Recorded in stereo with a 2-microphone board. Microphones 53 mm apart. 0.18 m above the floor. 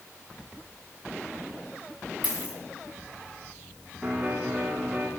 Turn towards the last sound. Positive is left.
turn(degrees=-10)  # may be behind; listen again after turning